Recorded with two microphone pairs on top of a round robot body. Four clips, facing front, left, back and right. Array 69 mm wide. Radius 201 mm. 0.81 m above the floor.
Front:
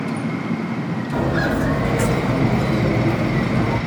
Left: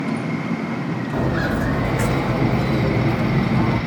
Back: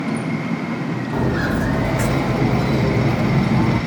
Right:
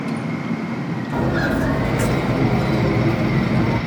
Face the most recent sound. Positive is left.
turn(degrees=160)